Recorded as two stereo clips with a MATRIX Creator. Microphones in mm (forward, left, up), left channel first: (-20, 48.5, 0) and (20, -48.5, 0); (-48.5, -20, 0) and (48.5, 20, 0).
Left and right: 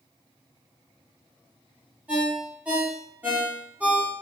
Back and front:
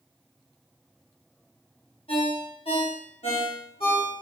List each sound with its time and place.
2.1 s a ringtone: 140° right, 0.9 m